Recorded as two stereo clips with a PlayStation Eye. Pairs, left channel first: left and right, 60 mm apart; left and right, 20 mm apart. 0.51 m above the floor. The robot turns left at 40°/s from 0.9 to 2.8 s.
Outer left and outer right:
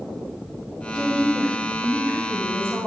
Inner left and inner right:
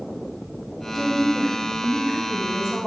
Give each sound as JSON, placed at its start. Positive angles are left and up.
{"t": 0.9, "sound": "a woman speaking", "azimuth_deg": 15, "distance_m": 4.0}